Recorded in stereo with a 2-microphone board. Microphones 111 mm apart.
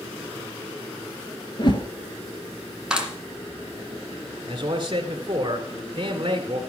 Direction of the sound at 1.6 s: 40° left (ahead or behind).